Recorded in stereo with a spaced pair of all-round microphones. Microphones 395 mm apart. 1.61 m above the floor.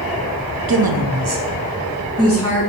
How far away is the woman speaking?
About 0.6 m.